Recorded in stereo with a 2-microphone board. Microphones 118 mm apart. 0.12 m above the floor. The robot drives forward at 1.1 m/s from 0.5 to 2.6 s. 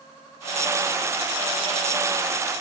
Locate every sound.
Only background noise.